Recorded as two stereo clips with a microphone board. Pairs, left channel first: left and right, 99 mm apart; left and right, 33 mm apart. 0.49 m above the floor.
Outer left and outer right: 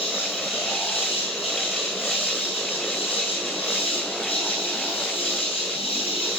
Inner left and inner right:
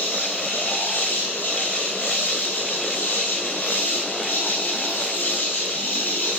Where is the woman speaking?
I don't hear a woman speaking.